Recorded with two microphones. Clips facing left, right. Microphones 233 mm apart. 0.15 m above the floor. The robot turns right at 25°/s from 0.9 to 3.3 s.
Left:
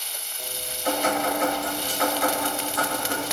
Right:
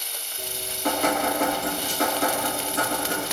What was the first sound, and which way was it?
Dripping, 80° right.